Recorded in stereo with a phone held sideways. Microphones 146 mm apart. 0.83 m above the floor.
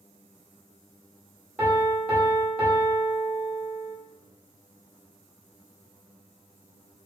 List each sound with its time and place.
1.6 s a piano: 15° right (ahead or behind), 1.3 m